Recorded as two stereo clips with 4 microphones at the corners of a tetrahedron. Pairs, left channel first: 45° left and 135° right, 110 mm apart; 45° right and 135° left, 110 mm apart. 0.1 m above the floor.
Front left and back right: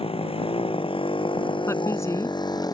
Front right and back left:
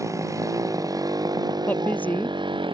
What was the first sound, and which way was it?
A motorcycle, 75° left.